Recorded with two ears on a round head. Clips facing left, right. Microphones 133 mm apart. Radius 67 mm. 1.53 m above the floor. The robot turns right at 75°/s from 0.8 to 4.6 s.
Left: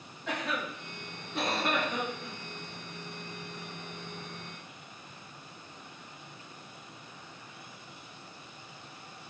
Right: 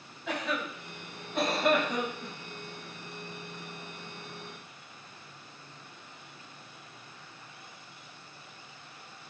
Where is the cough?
Centre (ahead or behind), 0.9 m; by 2.3 s 50° right (ahead or behind), 0.9 m.